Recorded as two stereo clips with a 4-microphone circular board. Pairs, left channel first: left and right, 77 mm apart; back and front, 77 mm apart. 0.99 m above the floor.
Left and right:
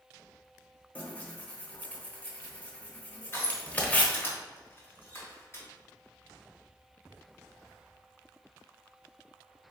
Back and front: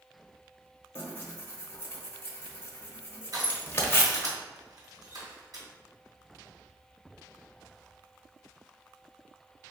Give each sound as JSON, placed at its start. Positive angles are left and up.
{"t": 0.9, "sound": "tearing paper", "azimuth_deg": 145, "distance_m": 0.8}
{"t": 3.3, "sound": "crushing", "azimuth_deg": 30, "distance_m": 2.0}